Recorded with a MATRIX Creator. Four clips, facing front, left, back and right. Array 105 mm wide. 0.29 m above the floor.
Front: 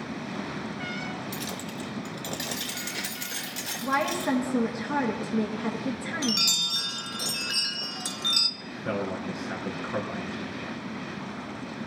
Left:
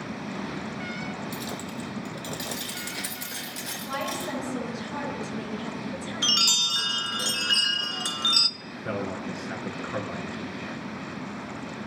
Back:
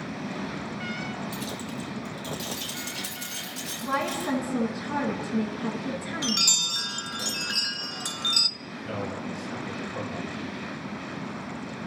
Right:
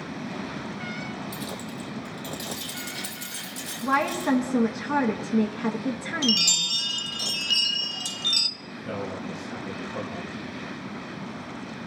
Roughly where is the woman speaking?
Right.